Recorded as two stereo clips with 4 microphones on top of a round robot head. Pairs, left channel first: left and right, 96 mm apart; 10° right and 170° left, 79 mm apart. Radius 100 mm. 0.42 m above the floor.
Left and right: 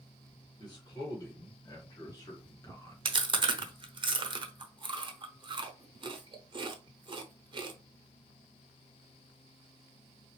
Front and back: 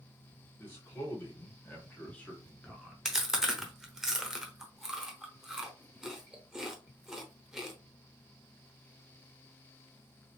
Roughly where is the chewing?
Right.